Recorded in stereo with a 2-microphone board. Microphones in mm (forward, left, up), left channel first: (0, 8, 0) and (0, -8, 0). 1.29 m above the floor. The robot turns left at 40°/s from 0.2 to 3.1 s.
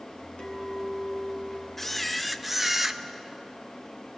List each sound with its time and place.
0.4 s a clink: 80° left, 3 m; by 1.7 s 30° left, 3 m
1.8 s a camera shutter: 10° left, 0.7 m; by 3.0 s 40° right, 0.7 m